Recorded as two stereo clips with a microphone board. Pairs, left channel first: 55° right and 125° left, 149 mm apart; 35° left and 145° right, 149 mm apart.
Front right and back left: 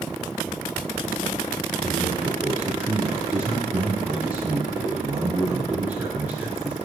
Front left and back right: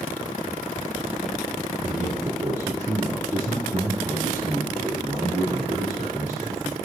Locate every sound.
1.8 s a man speaking: 170° right, 1.9 m